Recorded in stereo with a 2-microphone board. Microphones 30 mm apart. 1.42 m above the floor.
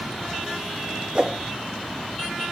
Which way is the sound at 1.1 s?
35° right (ahead or behind).